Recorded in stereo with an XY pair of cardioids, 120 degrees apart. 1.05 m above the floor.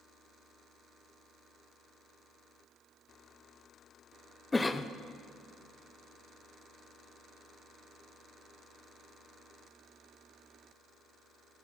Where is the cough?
15° left, 0.5 m.